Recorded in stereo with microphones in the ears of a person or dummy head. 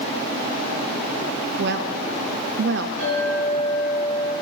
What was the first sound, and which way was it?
A woman speaking, 65° right (ahead or behind).